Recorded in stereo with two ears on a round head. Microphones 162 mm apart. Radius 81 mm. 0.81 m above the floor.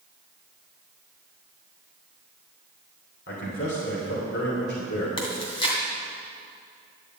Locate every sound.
3.3 s a man speaking: 60° left (ahead or behind), 3 m
5.2 s chewing: 30° left (ahead or behind), 2.5 m